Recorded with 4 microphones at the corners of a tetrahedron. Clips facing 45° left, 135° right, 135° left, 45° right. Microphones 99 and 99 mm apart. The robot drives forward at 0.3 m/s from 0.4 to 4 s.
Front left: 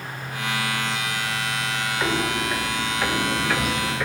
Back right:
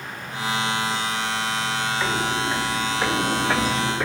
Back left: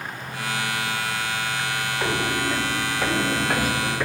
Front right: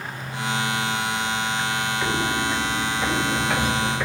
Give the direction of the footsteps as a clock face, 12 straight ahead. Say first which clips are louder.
Front left 2 dB, back left 1 dB; 8 o'clock.